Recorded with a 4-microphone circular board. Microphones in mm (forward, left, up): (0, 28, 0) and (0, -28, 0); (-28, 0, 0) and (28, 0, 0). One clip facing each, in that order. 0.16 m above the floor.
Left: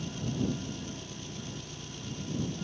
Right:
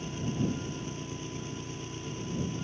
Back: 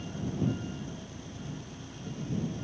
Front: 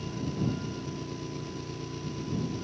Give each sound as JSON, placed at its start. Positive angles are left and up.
{"t": 0.0, "sound": "an engine running", "azimuth_deg": -30}